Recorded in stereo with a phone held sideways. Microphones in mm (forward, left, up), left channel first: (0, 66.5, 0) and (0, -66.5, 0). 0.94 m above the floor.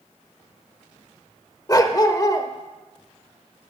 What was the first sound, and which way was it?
A dog barking, 25° left (ahead or behind).